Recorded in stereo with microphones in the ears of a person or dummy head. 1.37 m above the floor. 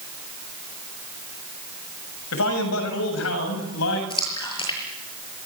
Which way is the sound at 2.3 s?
70° left (ahead or behind).